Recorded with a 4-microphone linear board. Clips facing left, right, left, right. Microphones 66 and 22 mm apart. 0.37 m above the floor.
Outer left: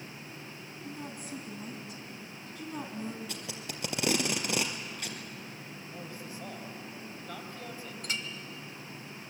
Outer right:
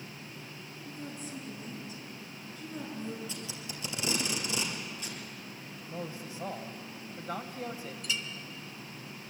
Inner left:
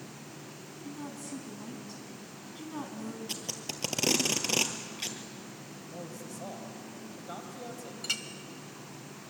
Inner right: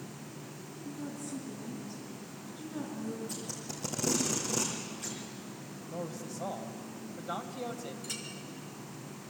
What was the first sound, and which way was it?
A woman speaking, 65° left (ahead or behind).